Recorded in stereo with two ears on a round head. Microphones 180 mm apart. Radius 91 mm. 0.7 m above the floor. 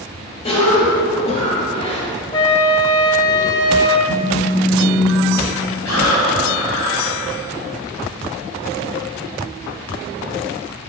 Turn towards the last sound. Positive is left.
turn(degrees=85)